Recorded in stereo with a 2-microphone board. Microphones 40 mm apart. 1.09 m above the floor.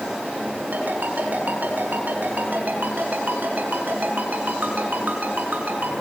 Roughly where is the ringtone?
Right.